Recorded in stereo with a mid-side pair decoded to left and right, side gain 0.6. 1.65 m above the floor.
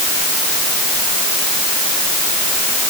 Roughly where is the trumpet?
I don't hear a trumpet.